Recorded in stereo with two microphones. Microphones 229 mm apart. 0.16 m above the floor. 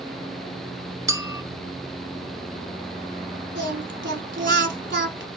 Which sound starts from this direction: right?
Singing, at 3.5 s.